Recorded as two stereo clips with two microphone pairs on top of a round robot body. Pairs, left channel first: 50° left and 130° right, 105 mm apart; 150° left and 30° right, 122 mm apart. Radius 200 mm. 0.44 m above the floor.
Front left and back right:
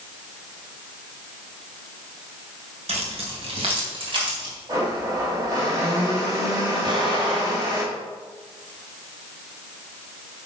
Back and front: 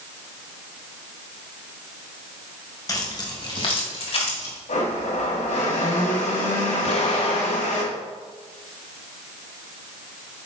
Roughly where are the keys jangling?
Behind right.